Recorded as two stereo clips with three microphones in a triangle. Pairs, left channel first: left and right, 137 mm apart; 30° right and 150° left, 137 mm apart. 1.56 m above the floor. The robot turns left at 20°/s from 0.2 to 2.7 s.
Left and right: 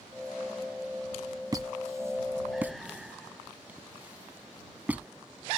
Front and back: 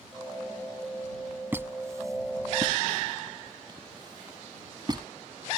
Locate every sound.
1.5 s a squeak: 140° right; by 5.1 s 165° right